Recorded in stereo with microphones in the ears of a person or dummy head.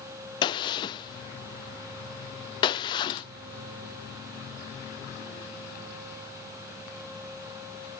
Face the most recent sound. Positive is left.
turn(degrees=55)  # may be behind; listen again after turning